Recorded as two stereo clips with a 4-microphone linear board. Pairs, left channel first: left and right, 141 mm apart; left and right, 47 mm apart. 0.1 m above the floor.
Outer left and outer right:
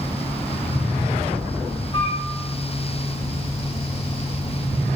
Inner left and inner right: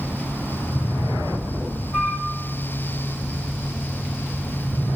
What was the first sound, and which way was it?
A flute, 35° left (ahead or behind).